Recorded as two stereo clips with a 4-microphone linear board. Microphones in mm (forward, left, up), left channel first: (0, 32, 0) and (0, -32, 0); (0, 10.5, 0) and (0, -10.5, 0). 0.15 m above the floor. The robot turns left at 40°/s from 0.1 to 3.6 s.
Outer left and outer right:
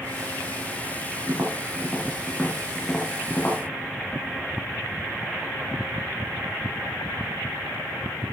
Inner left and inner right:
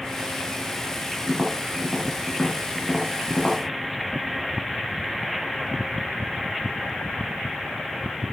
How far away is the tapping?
About 3.5 m.